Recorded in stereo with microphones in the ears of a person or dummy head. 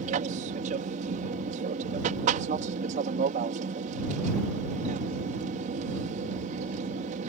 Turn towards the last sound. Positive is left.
turn(degrees=-45)  # may be behind; listen again after turning